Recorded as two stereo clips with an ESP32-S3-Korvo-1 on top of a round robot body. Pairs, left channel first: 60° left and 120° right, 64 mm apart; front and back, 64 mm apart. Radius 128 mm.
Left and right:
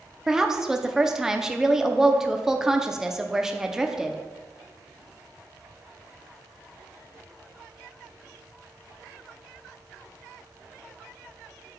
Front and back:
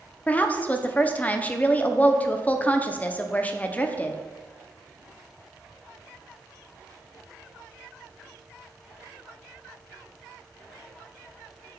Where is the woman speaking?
45° right, 0.8 m.